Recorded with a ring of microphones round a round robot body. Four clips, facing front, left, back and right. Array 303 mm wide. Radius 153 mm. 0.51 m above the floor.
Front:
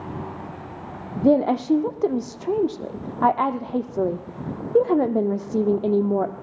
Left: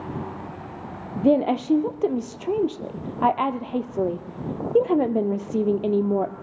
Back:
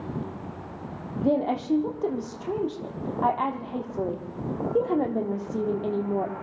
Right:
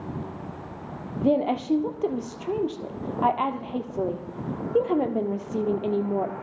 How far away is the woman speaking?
About 1.4 m.